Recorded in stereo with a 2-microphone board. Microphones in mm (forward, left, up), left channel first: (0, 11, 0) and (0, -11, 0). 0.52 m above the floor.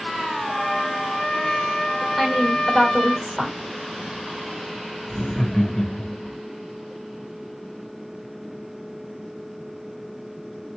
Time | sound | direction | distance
0.5 | a trumpet | 25° left (ahead or behind) | 1.0 m
2.2 | a woman speaking | centre (ahead or behind) | 2.0 m
5.1 | laughter | 35° left (ahead or behind) | 1.8 m